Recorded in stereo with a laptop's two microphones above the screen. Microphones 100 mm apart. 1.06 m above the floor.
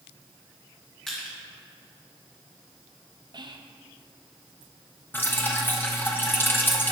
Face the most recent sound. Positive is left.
turn(degrees=20)  # may be behind; listen again after turning